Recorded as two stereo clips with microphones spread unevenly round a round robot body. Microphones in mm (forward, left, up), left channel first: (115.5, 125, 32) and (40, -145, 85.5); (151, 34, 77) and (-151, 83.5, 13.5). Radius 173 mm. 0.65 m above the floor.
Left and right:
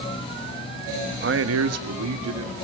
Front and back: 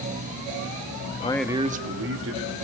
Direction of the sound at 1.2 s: 70° right.